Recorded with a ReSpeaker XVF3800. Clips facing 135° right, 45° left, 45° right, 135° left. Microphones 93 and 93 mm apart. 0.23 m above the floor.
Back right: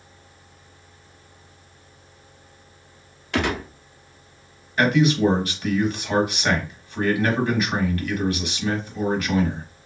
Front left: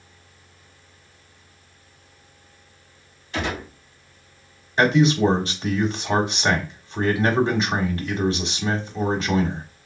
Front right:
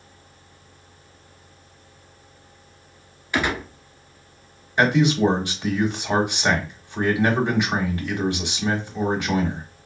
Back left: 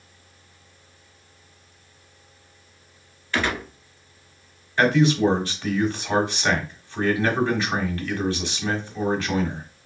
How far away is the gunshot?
About 0.9 m.